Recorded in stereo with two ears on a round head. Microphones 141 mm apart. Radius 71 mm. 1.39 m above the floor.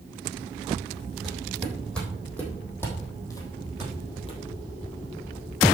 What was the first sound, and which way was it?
Footsteps, centre (ahead or behind).